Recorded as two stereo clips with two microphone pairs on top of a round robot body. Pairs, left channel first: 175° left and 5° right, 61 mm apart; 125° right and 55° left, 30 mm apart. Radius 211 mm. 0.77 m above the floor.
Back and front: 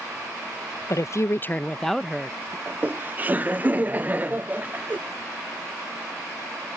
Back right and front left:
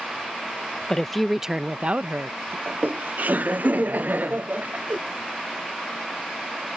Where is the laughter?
60° left.